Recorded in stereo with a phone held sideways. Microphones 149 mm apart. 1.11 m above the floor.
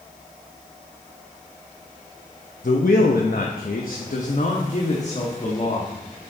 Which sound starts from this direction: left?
A man speaking, at 2.6 s.